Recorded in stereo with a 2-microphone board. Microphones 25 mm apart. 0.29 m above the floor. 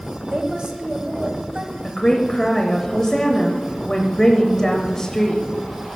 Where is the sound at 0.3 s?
40° right (ahead or behind), 1.2 m.